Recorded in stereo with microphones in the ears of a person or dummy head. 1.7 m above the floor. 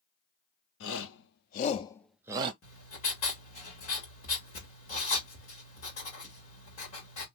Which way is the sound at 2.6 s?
40° left (ahead or behind).